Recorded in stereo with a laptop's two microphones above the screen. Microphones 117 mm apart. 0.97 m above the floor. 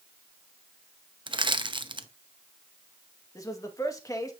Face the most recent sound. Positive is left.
turn(degrees=30)  # may be behind; listen again after turning